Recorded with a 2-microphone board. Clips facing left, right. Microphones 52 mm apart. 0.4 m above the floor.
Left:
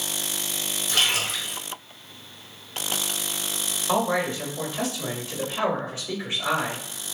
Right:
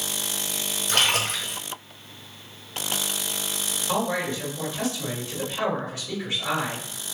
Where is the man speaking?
30° left (ahead or behind), 1.4 m.